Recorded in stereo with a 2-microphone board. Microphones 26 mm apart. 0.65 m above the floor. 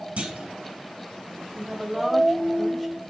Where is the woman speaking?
5° left (ahead or behind), 2.5 m.